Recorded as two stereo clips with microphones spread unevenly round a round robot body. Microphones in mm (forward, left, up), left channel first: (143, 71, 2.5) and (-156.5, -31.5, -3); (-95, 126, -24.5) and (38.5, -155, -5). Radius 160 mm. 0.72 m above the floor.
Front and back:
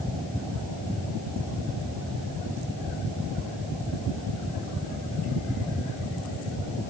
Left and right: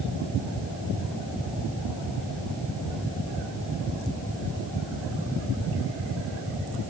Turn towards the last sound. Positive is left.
No sound to turn to.